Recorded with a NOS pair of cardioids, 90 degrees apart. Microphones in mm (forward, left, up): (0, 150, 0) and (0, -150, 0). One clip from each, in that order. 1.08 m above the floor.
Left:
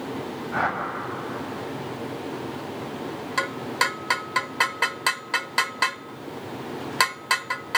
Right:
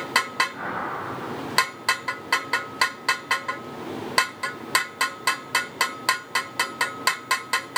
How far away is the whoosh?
About 7 m.